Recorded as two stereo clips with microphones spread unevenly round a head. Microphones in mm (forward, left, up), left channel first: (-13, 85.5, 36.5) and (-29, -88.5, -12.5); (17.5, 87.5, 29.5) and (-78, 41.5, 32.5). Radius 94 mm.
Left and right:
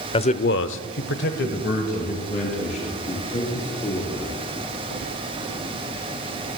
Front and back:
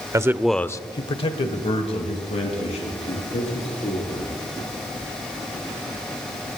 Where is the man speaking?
150° left, 0.8 m; by 4.3 s 25° left, 4.5 m.